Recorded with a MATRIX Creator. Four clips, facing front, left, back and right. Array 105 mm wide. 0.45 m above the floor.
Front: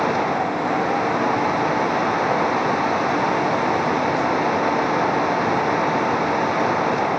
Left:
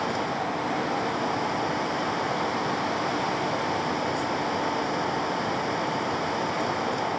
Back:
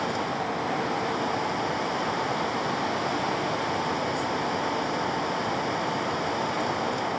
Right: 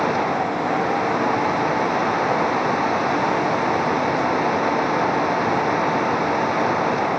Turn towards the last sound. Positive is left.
No sound to turn to.